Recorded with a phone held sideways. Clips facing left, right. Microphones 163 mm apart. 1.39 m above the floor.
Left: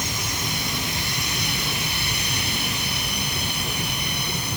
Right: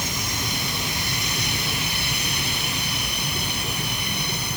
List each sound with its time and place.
Only background noise.